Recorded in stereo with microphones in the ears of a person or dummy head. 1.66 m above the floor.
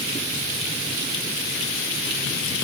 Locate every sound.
Only background noise.